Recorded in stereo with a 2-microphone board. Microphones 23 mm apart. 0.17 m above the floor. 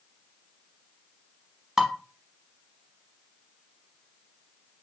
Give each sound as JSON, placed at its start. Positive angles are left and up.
{"t": 1.8, "sound": "dishes clattering", "side_deg": -15, "distance_m": 0.8}